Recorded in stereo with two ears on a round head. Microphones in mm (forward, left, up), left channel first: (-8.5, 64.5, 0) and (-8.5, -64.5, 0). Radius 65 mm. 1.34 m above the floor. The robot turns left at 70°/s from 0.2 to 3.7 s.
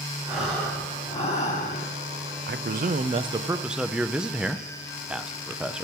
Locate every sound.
0.3 s breathing: 170° right, 2.5 m; by 1.9 s 80° left, 2.5 m
2.5 s a man speaking: 85° right, 0.6 m; by 5.8 s 175° right, 0.6 m